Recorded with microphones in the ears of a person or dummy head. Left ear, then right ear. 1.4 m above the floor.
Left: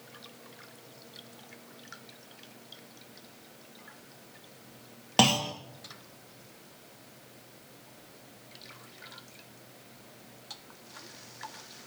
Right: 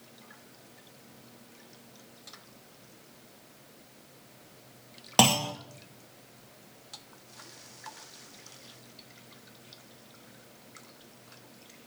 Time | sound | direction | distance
5.2 | a clunk | 15° right (ahead or behind) | 0.7 m